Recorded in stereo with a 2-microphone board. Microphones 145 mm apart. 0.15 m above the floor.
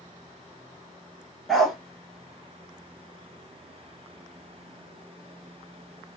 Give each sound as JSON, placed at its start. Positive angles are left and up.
{"t": 1.5, "sound": "a dog barking", "side_deg": 0, "distance_m": 0.7}